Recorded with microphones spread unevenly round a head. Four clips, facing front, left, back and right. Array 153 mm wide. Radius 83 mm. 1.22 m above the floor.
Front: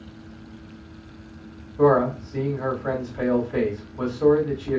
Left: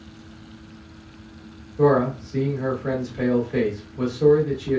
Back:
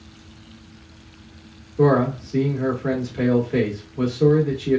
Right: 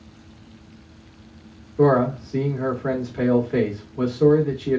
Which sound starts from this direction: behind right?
A man speaking, at 1.8 s.